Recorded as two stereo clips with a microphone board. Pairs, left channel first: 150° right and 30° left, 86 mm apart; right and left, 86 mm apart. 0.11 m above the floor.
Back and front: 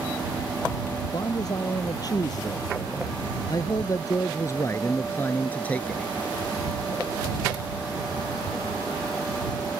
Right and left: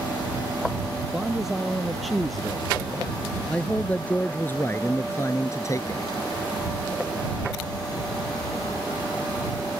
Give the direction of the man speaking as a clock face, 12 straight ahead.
6 o'clock.